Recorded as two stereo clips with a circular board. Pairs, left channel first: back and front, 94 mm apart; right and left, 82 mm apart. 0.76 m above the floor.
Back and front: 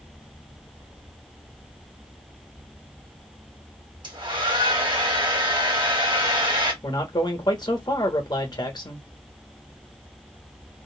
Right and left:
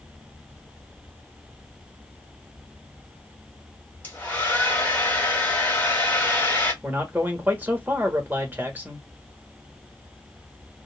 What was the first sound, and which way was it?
A hair dryer, 25° right.